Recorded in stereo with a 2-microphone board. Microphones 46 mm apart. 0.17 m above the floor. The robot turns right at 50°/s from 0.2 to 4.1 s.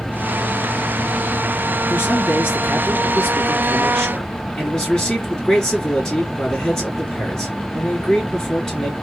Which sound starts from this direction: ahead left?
A man speaking, at 1.9 s.